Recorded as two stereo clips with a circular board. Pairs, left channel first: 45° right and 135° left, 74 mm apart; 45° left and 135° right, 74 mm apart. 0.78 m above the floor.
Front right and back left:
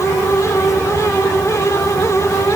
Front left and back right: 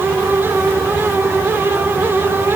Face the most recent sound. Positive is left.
No sound to turn to.